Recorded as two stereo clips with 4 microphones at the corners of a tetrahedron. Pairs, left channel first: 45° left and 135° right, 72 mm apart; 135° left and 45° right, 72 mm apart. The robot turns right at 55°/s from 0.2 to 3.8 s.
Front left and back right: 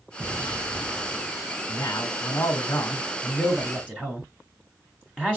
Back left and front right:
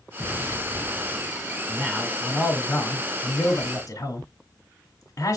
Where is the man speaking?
20° left, 1.1 m; by 5.4 s 135° left, 1.1 m.